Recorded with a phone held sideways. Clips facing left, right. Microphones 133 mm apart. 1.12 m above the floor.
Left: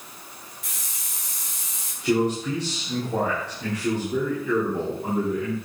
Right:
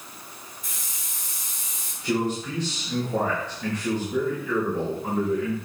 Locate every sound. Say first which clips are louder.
0.6 s a hiss: even; 80° left, 3 m
2.0 s a man speaking: left 4 dB; 70° left (ahead or behind), 3.5 m